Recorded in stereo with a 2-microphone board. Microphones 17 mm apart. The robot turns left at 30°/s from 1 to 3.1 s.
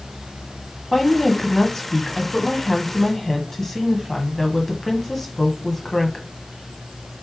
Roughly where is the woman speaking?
Left.